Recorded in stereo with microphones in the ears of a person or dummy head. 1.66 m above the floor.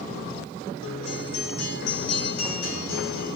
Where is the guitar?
80° left, 4 m.